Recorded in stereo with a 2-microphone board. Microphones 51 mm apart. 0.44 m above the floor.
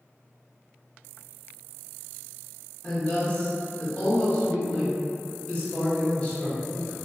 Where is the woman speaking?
25° left (ahead or behind), 0.7 m.